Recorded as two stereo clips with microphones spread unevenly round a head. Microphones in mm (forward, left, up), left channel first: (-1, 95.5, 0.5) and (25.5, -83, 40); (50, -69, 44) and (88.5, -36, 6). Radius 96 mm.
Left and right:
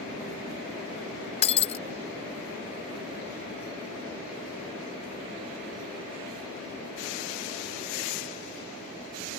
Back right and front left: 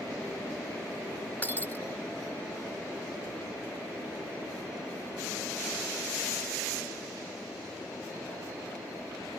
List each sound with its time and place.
1.4 s breaking glass: 165° left